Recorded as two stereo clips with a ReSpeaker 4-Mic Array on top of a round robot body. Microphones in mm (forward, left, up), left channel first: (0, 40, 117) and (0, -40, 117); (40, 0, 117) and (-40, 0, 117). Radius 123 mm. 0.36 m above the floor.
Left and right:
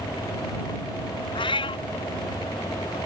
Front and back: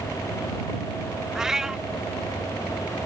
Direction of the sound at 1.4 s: 95° left.